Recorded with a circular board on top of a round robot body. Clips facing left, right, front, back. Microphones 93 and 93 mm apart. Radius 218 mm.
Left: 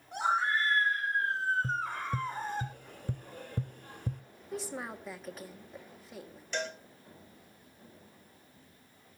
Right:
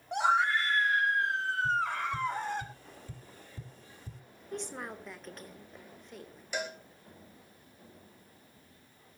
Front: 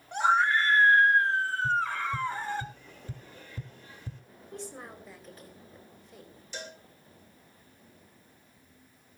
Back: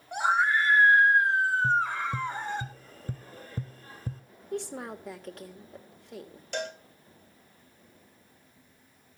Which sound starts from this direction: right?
A scream, at 0.1 s.